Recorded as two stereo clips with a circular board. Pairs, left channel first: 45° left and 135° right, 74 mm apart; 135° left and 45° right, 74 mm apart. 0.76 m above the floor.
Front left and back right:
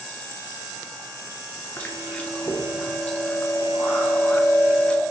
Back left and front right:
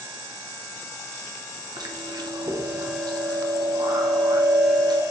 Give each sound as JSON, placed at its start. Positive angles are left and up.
{"t": 1.8, "sound": "chewing", "azimuth_deg": -25, "distance_m": 0.6}